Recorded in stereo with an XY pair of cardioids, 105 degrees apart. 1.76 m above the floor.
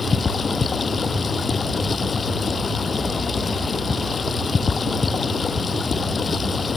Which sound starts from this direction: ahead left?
Running water, at 0.0 s.